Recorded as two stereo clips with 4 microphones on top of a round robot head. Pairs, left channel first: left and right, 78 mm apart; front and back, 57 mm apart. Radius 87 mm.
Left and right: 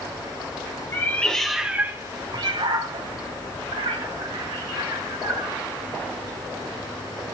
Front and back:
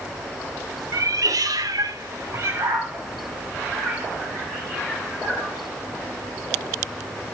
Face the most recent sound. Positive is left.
turn(degrees=-85)